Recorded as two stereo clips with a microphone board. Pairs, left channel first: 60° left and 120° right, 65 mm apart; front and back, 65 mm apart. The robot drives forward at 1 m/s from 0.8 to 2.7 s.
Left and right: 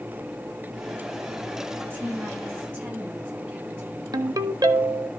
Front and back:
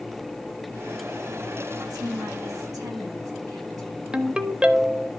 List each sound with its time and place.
1.9 s a woman speaking: straight behind, 3.5 m
4.1 s a ringtone: 105° right, 0.7 m